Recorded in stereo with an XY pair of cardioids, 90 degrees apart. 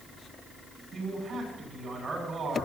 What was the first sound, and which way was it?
A man speaking, 55° right.